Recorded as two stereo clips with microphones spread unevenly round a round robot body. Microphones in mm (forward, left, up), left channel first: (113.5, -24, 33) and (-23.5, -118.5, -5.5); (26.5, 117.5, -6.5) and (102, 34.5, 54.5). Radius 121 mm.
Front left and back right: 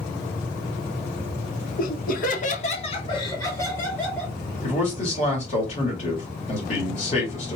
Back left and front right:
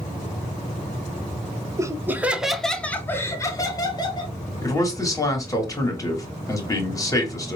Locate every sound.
1.8 s laughter: 35° left, 1.0 m; by 4.3 s 125° left, 1.7 m
4.6 s a man speaking: 95° left, 2 m